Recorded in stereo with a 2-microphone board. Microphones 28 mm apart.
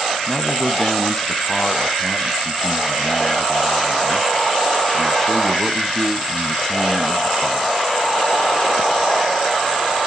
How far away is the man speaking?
About 1.4 m.